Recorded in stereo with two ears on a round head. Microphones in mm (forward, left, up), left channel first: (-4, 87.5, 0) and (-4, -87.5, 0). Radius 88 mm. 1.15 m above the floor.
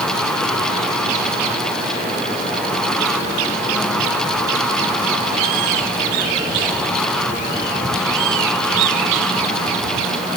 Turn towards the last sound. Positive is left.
No sound to turn to.